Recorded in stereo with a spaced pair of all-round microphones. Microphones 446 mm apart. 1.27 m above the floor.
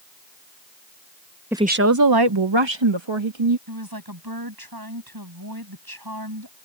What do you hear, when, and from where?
1.5 s a woman speaking: 5° right (ahead or behind); by 3.6 s 90° right
3.7 s a woman speaking: 55° right (ahead or behind)